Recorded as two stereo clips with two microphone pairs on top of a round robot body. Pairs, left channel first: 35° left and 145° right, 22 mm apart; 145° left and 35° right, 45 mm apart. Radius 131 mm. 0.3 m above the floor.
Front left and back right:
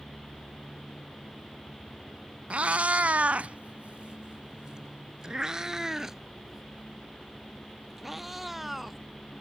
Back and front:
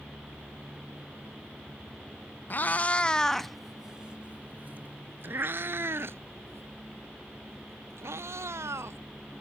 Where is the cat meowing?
165° right; by 9.0 s 60° right.